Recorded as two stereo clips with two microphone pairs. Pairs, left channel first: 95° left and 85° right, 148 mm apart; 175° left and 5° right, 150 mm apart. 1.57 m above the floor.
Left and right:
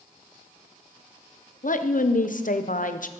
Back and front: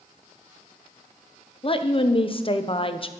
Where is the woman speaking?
120° left, 0.9 m.